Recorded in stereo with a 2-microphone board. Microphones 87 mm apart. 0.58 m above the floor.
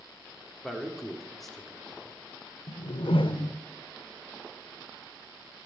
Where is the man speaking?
5° left (ahead or behind), 1.9 m.